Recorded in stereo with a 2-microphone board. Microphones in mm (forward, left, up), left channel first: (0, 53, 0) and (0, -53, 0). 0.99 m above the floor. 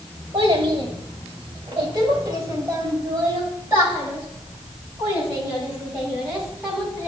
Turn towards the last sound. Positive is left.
turn(degrees=0)  # may be behind; listen again after turning